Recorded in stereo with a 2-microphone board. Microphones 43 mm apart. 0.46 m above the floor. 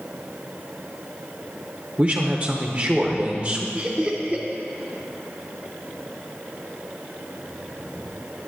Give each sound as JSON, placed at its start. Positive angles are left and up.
{"t": 2.0, "sound": "a man speaking", "side_deg": -30, "distance_m": 1.0}
{"t": 3.8, "sound": "laughter", "side_deg": -25, "distance_m": 1.1}